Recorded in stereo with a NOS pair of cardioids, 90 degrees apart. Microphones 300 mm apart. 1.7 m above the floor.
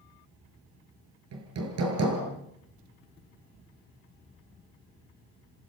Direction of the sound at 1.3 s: 55° right.